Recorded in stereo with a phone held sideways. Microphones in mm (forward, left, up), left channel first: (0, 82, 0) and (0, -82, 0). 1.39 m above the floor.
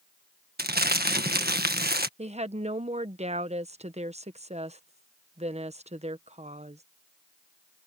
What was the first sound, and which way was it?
Crumpling, 75° right (ahead or behind).